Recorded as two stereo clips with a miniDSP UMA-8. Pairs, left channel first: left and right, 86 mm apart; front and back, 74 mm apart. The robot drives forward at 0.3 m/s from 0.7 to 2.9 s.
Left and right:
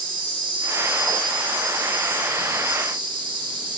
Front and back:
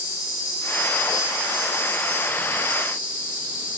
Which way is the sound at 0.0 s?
60° right.